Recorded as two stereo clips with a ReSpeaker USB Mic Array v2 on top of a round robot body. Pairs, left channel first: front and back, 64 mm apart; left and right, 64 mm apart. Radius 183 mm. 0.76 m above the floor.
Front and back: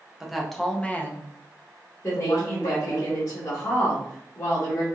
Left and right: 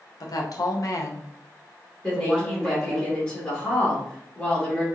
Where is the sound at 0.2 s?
95° left, 0.9 m; by 3.0 s 5° right, 1.3 m.